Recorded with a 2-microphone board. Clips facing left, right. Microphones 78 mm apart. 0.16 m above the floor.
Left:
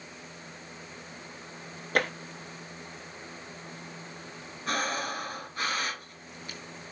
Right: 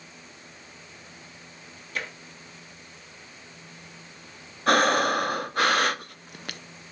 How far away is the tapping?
About 1.0 m.